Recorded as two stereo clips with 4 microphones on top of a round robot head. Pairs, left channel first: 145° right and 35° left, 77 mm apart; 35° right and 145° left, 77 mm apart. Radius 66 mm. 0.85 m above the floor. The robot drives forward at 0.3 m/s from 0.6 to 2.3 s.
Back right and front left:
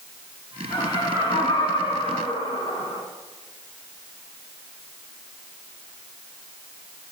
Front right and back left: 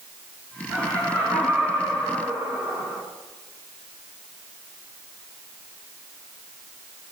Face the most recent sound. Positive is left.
turn(degrees=-155)